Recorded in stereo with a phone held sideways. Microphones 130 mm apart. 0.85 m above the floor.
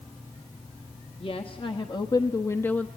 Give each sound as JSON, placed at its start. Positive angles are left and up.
{"t": 1.2, "sound": "a woman speaking", "side_deg": 45, "distance_m": 1.6}